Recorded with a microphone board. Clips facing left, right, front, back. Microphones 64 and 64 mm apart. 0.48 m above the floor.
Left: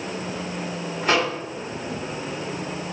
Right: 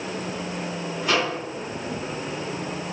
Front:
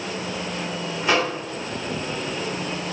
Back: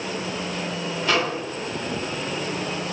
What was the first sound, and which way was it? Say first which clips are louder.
A microwave: left 2 dB, front 1 dB; 65° left.